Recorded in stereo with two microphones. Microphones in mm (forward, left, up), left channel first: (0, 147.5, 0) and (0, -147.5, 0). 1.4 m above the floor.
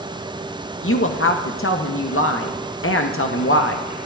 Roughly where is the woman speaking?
Left.